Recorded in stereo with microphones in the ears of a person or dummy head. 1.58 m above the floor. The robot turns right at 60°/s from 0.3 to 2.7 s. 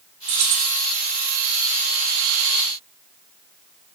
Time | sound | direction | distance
0.3 | keys jangling | 60° right (ahead or behind) | 1.7 m